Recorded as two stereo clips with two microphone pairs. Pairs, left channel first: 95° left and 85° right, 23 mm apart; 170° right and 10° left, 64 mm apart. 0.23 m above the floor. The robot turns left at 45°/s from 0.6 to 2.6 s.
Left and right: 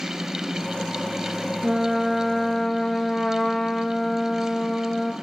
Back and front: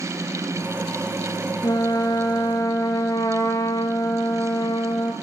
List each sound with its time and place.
1.6 s a trumpet: 150° right, 2 m; by 5.1 s 170° left, 2 m